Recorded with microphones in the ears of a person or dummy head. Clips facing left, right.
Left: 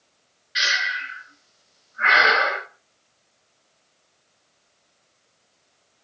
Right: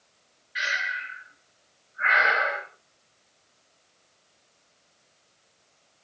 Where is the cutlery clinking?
No cutlery clinking in this recording.